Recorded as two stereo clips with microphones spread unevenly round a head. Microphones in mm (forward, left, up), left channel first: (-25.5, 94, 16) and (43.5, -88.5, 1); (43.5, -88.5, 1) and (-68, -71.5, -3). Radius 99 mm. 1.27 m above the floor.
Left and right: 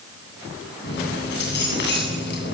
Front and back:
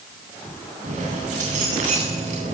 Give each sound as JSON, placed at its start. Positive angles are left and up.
{"t": 0.8, "sound": "keys jangling", "azimuth_deg": 150, "distance_m": 9.0}